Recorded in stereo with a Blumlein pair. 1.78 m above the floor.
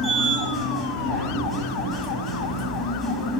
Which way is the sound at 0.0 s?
5° right.